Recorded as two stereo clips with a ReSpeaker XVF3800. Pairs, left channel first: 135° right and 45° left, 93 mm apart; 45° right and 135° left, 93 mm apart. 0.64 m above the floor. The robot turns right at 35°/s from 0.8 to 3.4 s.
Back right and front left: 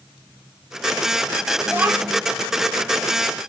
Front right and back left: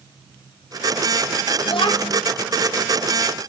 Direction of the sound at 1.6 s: 30° right.